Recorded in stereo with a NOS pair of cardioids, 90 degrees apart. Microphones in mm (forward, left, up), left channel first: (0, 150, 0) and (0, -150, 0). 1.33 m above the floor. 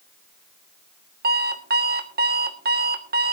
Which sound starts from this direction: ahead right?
An alarm clock, at 1.2 s.